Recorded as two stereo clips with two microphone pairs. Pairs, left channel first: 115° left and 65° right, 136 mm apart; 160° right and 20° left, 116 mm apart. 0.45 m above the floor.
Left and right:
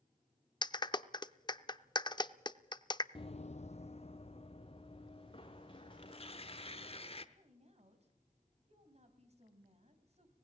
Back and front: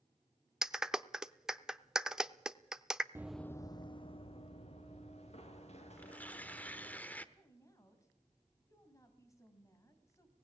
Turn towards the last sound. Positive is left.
turn(degrees=-100)